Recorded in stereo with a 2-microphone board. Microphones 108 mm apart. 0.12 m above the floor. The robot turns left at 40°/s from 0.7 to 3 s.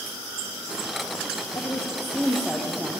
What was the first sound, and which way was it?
A woman speaking, 40° left.